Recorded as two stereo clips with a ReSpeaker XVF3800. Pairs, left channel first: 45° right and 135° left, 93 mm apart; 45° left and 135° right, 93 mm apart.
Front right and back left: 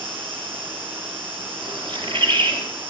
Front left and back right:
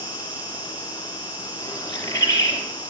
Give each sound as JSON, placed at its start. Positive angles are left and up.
{"t": 0.0, "sound": "an insect", "azimuth_deg": 155, "distance_m": 8.5}
{"t": 1.6, "sound": "a bird", "azimuth_deg": 100, "distance_m": 4.5}